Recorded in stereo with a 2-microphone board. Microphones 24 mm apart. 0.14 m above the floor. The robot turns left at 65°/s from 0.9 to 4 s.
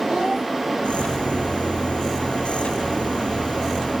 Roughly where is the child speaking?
Right.